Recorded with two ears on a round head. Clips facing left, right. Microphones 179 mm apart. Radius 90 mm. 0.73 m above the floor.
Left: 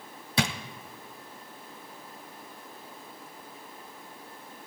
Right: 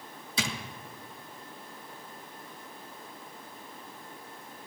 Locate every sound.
0.4 s a drawer: 50° left (ahead or behind), 1.0 m